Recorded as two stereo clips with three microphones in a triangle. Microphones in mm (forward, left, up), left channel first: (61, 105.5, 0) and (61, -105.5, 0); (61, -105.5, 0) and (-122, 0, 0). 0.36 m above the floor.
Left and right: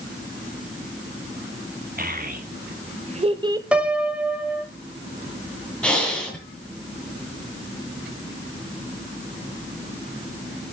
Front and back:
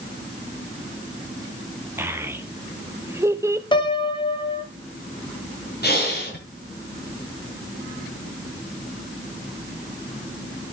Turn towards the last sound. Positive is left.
turn(degrees=5)